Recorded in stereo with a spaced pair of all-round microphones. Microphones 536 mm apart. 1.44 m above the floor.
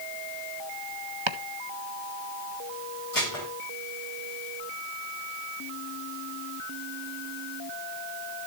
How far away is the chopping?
About 0.9 m.